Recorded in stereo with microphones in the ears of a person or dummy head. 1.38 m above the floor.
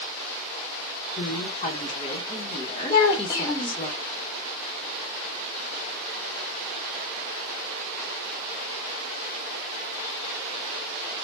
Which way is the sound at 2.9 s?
10° left (ahead or behind).